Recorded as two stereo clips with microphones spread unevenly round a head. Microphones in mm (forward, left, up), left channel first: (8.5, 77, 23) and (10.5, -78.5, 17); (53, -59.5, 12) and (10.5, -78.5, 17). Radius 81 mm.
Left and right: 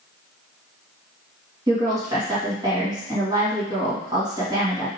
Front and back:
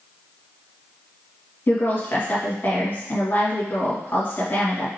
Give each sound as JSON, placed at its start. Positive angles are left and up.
{"t": 1.7, "sound": "a woman speaking", "azimuth_deg": -20, "distance_m": 2.0}